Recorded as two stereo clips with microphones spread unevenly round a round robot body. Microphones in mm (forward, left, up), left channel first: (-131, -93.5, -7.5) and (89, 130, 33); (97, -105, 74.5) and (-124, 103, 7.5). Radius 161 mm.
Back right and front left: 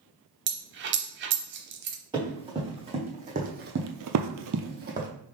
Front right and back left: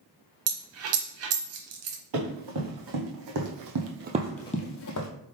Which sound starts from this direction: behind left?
Running footsteps, at 2.1 s.